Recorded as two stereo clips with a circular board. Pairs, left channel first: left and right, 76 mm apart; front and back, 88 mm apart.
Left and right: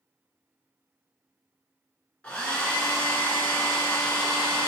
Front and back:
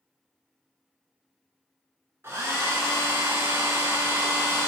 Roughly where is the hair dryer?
Behind left.